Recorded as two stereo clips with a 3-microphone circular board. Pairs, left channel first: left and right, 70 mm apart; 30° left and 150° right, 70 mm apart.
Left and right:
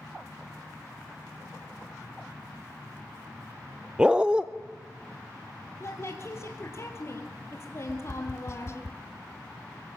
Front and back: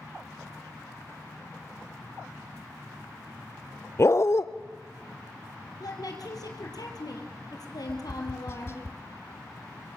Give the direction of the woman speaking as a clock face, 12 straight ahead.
11 o'clock.